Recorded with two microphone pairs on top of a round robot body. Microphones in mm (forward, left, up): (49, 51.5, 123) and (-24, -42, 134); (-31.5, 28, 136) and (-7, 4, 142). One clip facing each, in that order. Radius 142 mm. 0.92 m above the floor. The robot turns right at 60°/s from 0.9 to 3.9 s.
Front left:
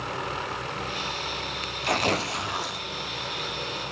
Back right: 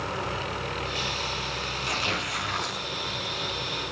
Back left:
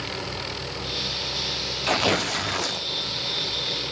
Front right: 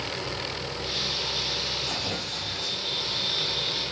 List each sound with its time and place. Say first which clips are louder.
1.8 s tearing paper: front left 8 dB, back left 8 dB; 90° left, 0.7 m; by 2.8 s 150° left, 0.7 m